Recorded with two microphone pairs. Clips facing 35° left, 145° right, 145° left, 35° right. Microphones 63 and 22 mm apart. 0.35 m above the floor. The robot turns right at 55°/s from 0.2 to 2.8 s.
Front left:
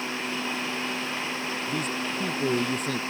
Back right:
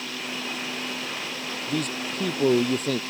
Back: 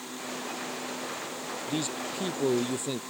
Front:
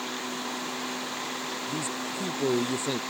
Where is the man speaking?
175° right; by 3.0 s 110° right.